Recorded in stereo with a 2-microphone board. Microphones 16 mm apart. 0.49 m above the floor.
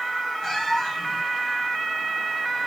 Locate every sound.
0.4 s a cat meowing: 35° left (ahead or behind), 3.5 m